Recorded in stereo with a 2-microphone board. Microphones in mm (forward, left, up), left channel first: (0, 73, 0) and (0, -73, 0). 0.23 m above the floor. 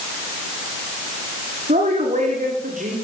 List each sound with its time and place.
1.7 s a woman speaking: 65° right (ahead or behind), 8 m; by 2.9 s 70° right (ahead or behind), 8 m